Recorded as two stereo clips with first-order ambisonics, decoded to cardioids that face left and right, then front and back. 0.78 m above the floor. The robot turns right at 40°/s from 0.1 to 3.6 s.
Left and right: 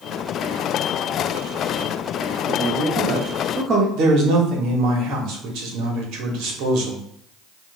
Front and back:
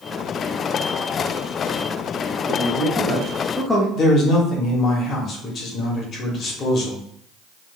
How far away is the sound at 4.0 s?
About 1.4 m.